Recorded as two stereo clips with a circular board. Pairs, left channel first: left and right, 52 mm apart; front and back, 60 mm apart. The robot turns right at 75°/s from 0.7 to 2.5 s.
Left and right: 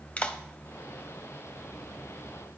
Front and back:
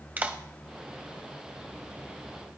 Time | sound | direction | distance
0.2 | a clap | 135° left | 0.9 m